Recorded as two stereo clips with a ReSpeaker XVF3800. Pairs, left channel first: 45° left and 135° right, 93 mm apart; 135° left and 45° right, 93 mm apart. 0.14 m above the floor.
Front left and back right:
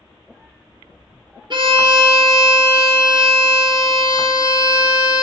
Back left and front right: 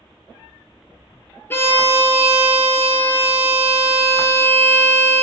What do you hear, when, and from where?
1.5 s a violin: 160° right, 0.5 m